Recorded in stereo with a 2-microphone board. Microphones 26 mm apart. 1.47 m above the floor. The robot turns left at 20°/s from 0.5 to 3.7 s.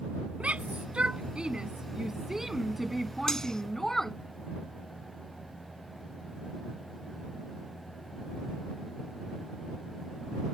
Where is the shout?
50° right (ahead or behind); by 4.2 s 10° left (ahead or behind).